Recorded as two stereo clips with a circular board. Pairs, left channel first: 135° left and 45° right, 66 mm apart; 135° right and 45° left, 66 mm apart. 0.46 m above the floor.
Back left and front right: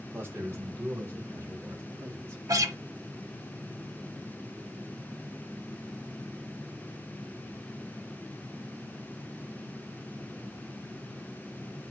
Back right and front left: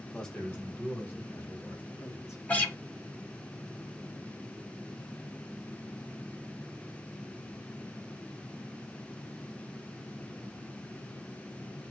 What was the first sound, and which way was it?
A man speaking, 60° right.